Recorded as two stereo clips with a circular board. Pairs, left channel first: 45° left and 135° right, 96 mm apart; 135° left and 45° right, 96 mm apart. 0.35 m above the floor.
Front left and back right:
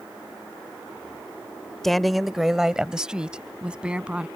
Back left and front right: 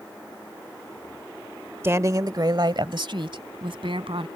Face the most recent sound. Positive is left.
turn(degrees=-60)